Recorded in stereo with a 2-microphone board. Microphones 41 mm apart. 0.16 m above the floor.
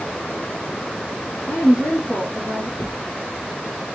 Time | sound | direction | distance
1.5 | a woman speaking | 50° left (ahead or behind) | 2 m
2.8 | a drawer | 75° left (ahead or behind) | 1.3 m